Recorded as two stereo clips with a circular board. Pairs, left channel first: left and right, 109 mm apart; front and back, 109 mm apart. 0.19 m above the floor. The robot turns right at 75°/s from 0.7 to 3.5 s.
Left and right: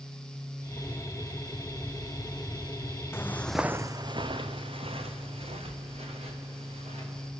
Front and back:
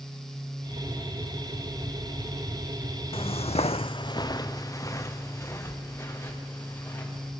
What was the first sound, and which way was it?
Footsteps, 20° left.